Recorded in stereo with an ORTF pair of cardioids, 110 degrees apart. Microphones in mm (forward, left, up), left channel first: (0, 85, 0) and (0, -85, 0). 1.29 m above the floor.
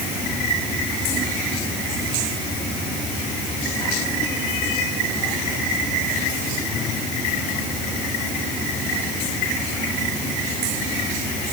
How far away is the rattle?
No rattle in this recording.